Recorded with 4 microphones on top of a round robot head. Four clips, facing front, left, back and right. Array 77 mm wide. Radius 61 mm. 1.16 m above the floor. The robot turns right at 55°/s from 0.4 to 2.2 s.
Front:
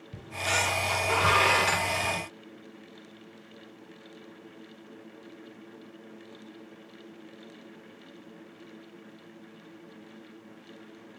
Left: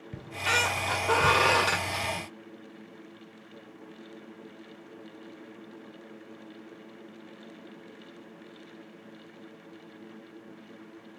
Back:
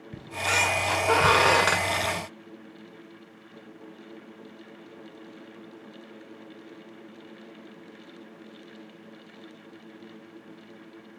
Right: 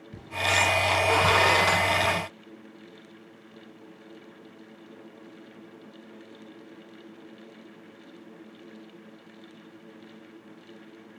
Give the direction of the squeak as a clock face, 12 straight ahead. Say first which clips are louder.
Right 3 dB, back 3 dB; 8 o'clock.